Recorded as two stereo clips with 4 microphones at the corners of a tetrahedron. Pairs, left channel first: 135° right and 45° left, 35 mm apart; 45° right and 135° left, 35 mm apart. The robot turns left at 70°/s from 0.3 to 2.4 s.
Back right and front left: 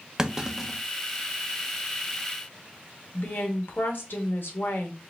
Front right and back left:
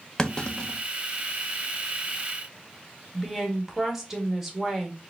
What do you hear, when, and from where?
0.2 s a clunk: straight ahead, 0.6 m; by 0.8 s 35° right, 0.6 m
3.1 s a woman speaking: 145° right, 1.1 m